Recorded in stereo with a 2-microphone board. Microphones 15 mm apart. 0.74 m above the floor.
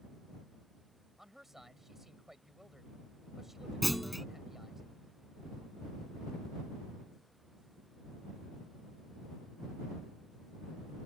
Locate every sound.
1.2 s a man speaking: 25° right (ahead or behind)
3.8 s a clunk: centre (ahead or behind)